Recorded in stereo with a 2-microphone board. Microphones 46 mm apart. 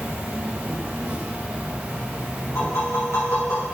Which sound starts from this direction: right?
An insect, at 0.0 s.